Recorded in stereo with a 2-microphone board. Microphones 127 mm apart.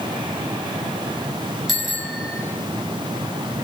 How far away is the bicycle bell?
About 8 m.